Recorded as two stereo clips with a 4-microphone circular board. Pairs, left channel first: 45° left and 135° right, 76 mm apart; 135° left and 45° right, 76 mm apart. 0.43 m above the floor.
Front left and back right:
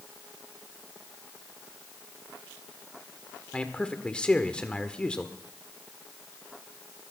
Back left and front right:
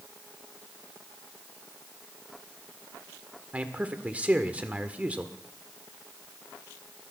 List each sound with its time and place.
3.5 s a man speaking: 10° right, 1.4 m